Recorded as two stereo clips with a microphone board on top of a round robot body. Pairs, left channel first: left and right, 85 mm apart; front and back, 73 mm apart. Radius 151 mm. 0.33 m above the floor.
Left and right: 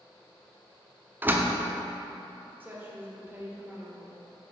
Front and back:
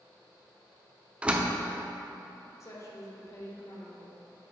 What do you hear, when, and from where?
1.2 s a door slam: 125° right, 0.9 m
2.6 s a woman speaking: 30° right, 1.8 m